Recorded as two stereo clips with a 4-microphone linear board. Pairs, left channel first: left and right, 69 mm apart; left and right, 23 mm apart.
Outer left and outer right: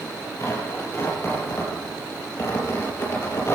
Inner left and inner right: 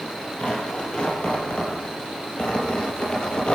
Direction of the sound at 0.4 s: 40° left (ahead or behind).